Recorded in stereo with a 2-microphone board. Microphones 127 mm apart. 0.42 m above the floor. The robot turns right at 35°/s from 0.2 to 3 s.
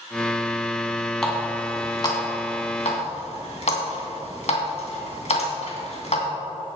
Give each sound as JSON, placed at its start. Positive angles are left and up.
{"t": 1.2, "sound": "a running tap", "side_deg": 5, "distance_m": 2.5}